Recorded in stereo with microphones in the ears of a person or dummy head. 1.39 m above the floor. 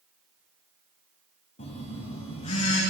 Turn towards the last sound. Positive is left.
turn(degrees=40)  # may be behind; listen again after turning